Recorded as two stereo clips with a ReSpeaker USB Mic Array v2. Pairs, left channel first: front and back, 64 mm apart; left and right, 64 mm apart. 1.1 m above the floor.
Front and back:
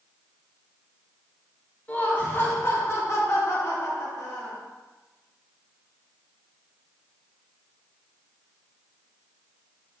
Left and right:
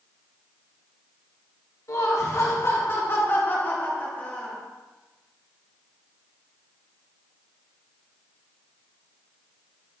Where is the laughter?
60° left, 1.6 m; by 4.6 s 25° left, 2.5 m.